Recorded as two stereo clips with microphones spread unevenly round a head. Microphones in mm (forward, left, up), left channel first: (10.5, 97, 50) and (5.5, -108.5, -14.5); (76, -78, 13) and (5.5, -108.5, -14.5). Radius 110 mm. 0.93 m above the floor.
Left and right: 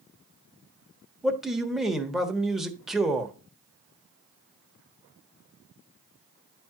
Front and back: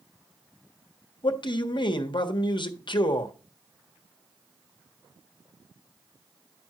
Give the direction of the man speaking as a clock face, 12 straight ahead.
12 o'clock.